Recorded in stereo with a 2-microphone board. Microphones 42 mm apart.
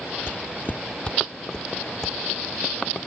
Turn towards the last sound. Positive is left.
turn(degrees=5)  # may be behind; listen again after turning